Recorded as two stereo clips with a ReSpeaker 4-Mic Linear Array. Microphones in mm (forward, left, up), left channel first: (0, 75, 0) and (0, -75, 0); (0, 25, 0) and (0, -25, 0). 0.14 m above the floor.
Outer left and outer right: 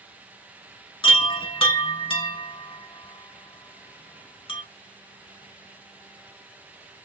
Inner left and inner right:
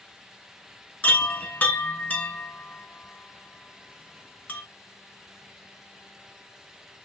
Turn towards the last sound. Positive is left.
turn(degrees=35)  # may be behind; listen again after turning